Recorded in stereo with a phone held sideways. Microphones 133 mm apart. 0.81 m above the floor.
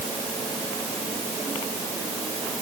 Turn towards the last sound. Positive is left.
No sound to turn to.